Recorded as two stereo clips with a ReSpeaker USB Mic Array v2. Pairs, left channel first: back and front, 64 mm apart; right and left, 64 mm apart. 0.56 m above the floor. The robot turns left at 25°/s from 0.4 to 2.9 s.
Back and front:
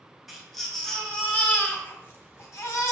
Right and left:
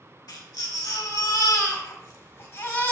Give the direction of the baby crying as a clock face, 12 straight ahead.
3 o'clock.